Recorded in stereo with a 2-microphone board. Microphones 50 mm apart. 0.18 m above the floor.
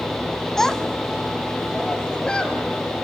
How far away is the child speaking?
About 0.8 m.